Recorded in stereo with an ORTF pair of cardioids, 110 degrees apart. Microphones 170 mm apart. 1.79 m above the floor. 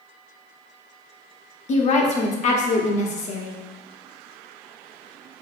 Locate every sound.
1.7 s a woman speaking: 45° left, 0.7 m